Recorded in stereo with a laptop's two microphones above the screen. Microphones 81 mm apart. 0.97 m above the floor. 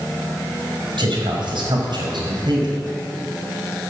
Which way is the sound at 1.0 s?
80° right.